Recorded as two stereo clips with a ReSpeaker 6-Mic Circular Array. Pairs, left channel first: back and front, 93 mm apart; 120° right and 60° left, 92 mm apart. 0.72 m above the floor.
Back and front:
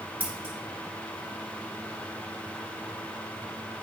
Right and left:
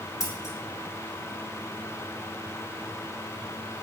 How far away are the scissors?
About 1.5 m.